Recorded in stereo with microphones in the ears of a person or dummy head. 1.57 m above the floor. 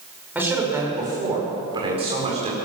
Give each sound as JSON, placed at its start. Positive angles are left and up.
{"t": 0.3, "sound": "a man speaking", "side_deg": -5, "distance_m": 6.5}